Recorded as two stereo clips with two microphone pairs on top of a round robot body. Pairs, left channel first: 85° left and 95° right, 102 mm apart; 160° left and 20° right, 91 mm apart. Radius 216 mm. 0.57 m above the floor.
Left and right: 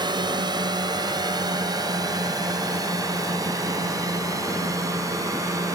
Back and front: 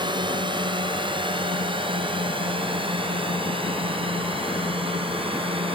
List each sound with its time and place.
0.0 s a drone: 50° right; by 5.8 s 35° right